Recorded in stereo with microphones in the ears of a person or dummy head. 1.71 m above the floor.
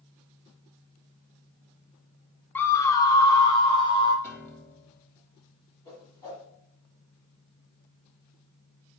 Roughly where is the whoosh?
Centre.